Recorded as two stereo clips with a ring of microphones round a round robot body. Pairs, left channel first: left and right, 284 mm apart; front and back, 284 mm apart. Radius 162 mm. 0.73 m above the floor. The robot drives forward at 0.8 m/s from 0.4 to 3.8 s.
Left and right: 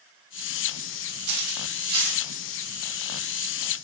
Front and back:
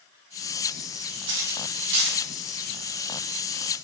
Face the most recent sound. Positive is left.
turn(degrees=-170)